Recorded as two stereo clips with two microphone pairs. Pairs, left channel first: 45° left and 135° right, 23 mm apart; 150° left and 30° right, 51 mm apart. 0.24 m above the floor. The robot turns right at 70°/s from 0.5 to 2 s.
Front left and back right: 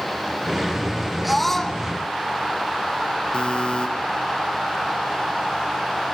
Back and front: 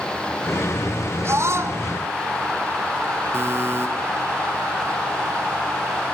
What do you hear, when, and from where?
1.2 s a scream: 45° right, 2.5 m; by 1.8 s 5° right, 2.5 m
3.3 s a buzzer: 10° left, 2.5 m